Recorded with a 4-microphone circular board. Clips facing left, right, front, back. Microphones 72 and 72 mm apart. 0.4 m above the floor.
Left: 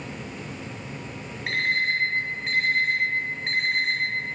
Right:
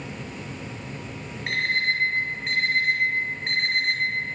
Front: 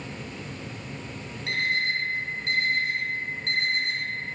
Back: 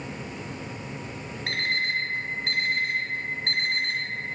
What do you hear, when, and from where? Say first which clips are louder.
1.5 s an alarm clock: even, front 1 dB; straight behind, 0.9 m